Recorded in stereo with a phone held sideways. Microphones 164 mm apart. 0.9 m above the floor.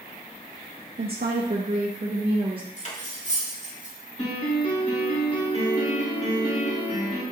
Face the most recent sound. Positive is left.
turn(degrees=35)  # may be behind; listen again after turning